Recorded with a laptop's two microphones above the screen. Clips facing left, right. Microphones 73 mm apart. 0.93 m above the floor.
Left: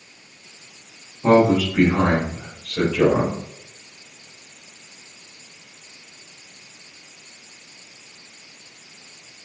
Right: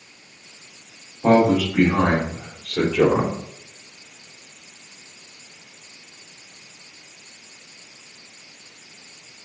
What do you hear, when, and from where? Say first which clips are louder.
1.2 s a man speaking: left 1 dB; 75° right (ahead or behind), 2 m; by 3.4 s 70° right (ahead or behind), 2 m